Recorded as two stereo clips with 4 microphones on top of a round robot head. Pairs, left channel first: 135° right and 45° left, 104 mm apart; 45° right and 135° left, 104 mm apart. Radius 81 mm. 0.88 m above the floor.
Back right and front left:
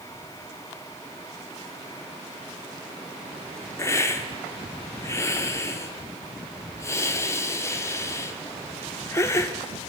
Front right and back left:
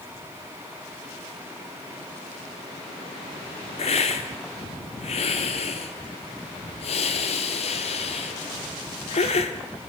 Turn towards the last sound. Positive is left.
turn(degrees=-70)